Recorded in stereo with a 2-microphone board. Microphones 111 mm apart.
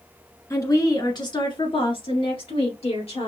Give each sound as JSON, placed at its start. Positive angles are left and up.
{"t": 0.5, "sound": "a woman speaking", "side_deg": 30, "distance_m": 1.6}